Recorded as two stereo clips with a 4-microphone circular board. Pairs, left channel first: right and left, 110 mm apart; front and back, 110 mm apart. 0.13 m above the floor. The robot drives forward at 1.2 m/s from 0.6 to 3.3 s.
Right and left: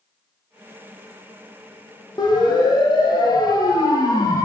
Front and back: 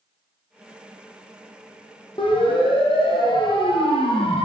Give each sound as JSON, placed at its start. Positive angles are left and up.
{"t": 2.2, "sound": "a siren", "azimuth_deg": -40, "distance_m": 8.0}